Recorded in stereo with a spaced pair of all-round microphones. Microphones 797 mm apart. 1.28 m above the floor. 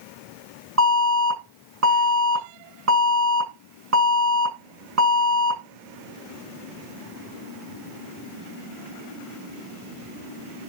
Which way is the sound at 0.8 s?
20° right (ahead or behind).